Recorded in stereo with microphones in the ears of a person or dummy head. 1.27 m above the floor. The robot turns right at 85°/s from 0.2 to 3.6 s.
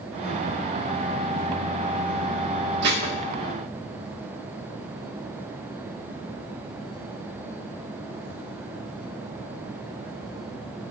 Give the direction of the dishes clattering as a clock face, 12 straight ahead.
2 o'clock.